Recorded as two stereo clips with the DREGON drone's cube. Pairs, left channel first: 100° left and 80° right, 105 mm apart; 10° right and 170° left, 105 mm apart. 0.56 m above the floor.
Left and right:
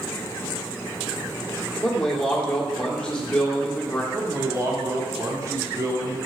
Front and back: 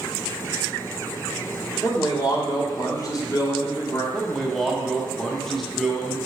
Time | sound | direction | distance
1.8 | a man speaking | 20° left | 1.4 m
4.1 | a man speaking | 95° right | 1.0 m